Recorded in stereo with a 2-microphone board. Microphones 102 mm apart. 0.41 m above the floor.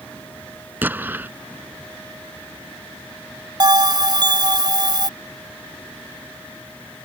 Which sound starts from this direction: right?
A bell, at 3.6 s.